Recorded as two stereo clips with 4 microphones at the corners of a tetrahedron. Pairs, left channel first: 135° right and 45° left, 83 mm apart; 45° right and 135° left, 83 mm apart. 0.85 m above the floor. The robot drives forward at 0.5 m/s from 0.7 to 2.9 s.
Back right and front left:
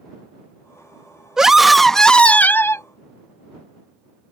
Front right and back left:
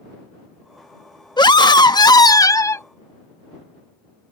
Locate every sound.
1.4 s a scream: 40° right; by 2.9 s 90° right